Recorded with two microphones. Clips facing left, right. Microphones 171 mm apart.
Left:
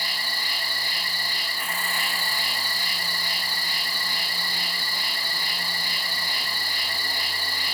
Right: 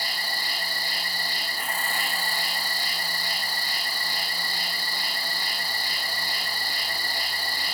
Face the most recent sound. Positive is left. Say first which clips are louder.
# right 1 dB
turn(degrees=-35)  # may be behind; listen again after turning